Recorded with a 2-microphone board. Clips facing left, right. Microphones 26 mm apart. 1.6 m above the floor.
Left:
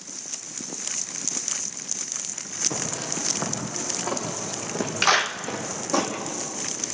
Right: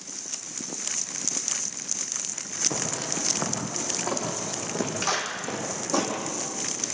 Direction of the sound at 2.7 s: 15° right (ahead or behind).